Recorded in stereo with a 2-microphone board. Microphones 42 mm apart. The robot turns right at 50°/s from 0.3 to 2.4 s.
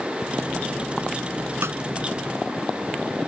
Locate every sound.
1.6 s a snare drum: 75° right (ahead or behind); by 1.8 s 85° right